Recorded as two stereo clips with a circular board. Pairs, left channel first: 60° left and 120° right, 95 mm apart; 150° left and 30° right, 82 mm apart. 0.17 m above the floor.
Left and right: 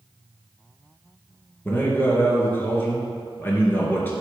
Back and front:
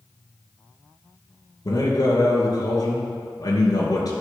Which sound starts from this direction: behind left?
A man speaking, at 1.6 s.